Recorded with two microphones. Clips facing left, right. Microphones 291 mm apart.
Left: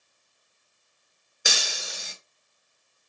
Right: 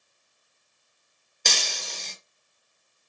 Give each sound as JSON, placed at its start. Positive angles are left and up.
{"t": 1.4, "sound": "breaking glass", "side_deg": 10, "distance_m": 0.7}